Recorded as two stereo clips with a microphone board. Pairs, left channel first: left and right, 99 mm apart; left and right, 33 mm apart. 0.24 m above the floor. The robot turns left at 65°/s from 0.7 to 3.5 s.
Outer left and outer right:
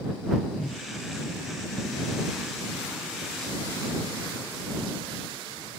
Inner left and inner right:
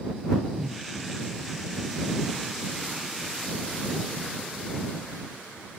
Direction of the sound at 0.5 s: Centre (ahead or behind).